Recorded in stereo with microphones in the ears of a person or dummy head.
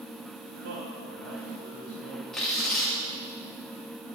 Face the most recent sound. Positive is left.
turn(degrees=5)  # may be behind; listen again after turning